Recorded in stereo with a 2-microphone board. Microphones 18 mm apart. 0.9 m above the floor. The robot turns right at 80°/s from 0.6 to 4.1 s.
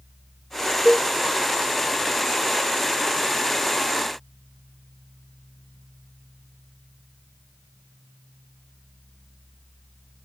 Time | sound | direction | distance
0.8 | a cowbell | 30° right (ahead or behind) | 1.0 m